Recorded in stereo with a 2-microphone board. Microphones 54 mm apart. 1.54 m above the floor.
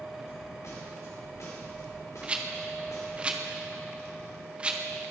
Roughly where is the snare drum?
Left.